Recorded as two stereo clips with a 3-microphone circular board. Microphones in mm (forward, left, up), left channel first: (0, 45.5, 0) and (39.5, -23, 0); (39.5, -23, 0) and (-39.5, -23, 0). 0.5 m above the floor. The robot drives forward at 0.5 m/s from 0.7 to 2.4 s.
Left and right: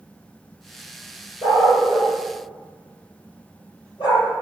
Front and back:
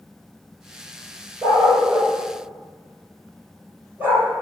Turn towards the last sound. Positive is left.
turn(degrees=115)